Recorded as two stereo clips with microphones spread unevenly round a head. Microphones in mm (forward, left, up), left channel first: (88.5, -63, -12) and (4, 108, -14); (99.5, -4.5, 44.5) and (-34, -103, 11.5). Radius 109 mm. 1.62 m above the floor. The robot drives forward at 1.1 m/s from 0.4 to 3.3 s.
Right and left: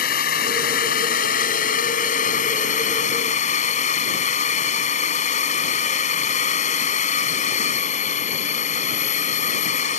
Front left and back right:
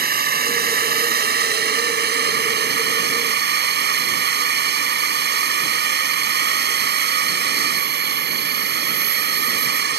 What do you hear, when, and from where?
0.0 s a drone: 115° right; by 10.0 s 125° right